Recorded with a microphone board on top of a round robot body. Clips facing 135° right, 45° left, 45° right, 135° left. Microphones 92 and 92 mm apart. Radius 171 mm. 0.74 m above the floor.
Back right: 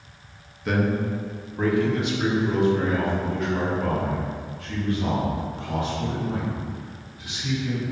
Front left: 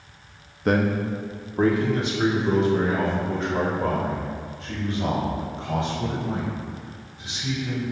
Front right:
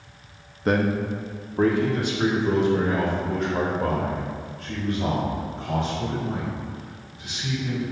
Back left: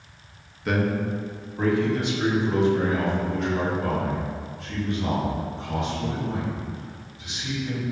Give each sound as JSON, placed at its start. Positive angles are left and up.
{"t": 0.7, "sound": "a man speaking", "azimuth_deg": 5, "distance_m": 1.1}